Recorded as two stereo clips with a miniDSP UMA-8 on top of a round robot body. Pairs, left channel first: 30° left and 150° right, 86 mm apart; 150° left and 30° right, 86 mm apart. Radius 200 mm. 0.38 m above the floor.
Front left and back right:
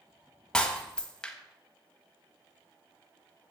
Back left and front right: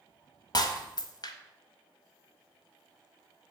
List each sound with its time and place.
0.5 s breaking glass: 110° left, 1.3 m